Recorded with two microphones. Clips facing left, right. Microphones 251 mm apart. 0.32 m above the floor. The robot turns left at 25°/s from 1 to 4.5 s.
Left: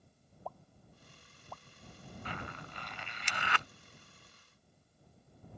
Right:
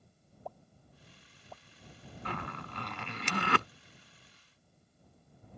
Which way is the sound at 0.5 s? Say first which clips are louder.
Even; 20° right (ahead or behind).